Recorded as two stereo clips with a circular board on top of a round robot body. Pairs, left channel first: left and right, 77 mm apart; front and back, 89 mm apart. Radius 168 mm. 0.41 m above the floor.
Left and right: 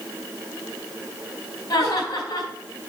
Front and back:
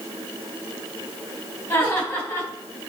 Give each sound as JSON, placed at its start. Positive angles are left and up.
{"t": 1.7, "sound": "laughter", "azimuth_deg": 55, "distance_m": 4.5}